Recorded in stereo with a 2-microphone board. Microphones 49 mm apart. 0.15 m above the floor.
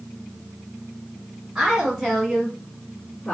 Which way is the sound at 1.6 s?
10° right (ahead or behind).